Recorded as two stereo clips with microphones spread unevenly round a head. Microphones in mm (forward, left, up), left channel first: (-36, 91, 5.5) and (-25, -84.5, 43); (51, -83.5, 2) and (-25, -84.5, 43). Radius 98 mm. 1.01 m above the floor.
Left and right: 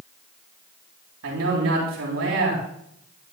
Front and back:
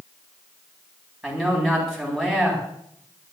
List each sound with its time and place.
1.2 s a man speaking: 90° right, 9 m